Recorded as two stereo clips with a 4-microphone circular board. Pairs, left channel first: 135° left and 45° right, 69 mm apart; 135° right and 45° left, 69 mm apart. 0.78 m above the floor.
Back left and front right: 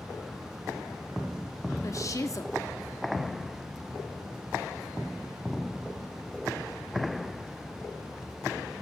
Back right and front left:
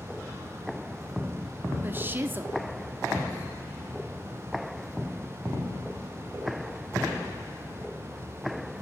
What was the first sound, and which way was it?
A woman speaking, 100° left.